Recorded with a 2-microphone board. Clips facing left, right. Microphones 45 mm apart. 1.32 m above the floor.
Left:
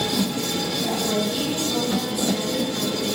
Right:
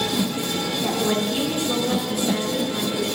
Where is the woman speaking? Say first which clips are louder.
Right 2 dB; 40° right (ahead or behind), 4.5 m.